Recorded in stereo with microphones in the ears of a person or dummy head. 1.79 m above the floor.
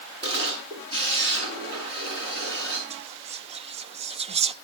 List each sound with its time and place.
0.2 s a camera shutter: 25° right (ahead or behind), 7.5 m
2.9 s whispering: 30° right (ahead or behind), 0.6 m